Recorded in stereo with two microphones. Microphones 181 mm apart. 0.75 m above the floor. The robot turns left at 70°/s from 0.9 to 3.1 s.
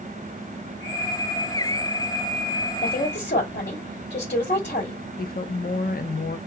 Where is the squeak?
I don't hear a squeak.